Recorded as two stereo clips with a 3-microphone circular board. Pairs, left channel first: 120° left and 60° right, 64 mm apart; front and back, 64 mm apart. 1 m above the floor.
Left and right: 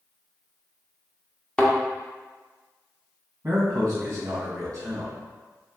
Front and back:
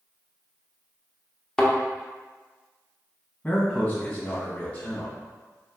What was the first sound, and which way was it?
A thud, 65° left.